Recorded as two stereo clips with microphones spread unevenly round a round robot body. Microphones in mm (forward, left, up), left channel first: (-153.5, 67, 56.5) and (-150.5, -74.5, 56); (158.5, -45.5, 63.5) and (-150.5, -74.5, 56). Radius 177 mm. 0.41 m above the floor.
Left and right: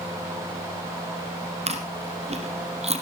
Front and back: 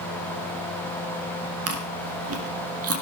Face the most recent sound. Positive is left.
turn(degrees=-130)